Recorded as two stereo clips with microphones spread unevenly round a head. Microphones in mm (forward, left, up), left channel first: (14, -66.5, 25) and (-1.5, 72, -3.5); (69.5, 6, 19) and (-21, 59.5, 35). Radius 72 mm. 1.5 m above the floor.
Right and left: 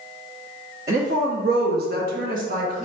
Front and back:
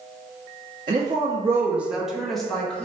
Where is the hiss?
I don't hear a hiss.